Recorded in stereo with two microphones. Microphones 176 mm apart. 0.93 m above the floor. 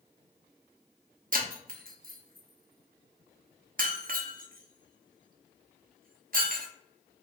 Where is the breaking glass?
55° right (ahead or behind), 0.8 m.